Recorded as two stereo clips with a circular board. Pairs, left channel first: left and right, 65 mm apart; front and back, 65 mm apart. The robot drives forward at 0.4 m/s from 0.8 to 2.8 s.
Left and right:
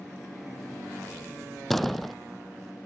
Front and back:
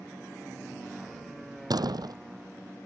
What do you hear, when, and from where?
1.7 s a door slam: 175° left